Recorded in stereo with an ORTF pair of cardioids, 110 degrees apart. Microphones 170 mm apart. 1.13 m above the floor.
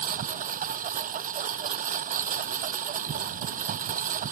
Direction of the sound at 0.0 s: 55° right.